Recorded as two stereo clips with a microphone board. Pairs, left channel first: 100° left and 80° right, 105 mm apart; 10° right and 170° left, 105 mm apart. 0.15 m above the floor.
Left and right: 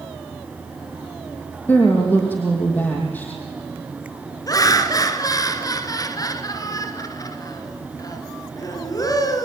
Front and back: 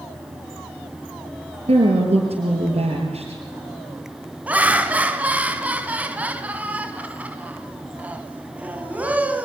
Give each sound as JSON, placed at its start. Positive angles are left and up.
{"t": 1.7, "sound": "a woman speaking", "azimuth_deg": 170, "distance_m": 4.0}
{"t": 4.5, "sound": "laughter", "azimuth_deg": 105, "distance_m": 1.6}